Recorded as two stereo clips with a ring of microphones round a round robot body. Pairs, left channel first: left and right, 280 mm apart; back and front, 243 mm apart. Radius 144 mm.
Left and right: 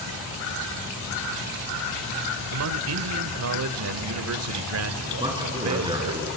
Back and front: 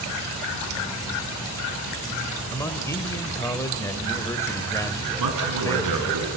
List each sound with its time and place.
2.5 s a man speaking: 105° right, 1.2 m
5.2 s a man speaking: 15° right, 4.5 m